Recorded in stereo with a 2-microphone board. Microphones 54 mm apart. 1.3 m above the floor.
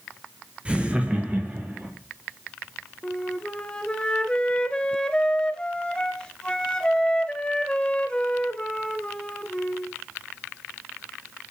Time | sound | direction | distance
0.7 | laughter | 15° right (ahead or behind) | 1.4 m
3.0 | a flute | 15° left (ahead or behind) | 0.8 m